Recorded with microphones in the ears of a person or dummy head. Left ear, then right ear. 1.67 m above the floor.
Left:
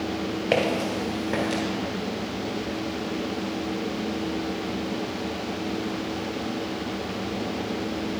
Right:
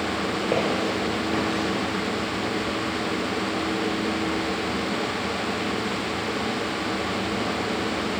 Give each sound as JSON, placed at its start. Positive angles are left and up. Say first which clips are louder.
{"t": 0.5, "sound": "footsteps", "louder": "left 2 dB", "side_deg": 20, "distance_m": 1.7}